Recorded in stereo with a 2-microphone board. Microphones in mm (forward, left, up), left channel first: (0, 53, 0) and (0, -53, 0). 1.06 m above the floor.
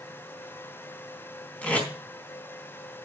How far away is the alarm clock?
No alarm clock in this recording.